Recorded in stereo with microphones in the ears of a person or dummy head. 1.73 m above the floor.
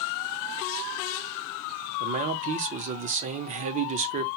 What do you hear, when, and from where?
2.0 s a man speaking: 40° right (ahead or behind), 0.5 m